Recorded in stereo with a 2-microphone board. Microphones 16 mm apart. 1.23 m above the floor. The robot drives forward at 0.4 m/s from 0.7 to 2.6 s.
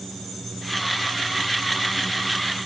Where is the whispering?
I don't hear whispering.